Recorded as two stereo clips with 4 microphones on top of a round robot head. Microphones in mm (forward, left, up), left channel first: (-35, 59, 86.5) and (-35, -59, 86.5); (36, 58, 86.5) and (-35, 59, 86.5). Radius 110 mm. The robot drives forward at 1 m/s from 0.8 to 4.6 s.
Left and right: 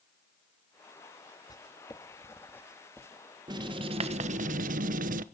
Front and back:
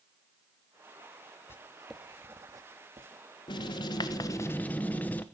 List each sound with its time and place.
1.5 s writing: 30° left, 1.0 m; by 3.1 s 170° left, 1.5 m
3.5 s writing: 30° right, 1.5 m; by 5.2 s 75° right, 0.8 m